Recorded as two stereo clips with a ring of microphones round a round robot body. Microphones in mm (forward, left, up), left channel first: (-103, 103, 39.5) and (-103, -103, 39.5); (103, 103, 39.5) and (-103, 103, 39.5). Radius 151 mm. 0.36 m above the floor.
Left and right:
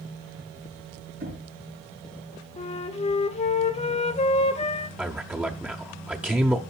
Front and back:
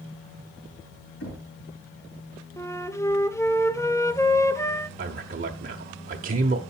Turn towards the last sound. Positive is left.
turn(degrees=-170)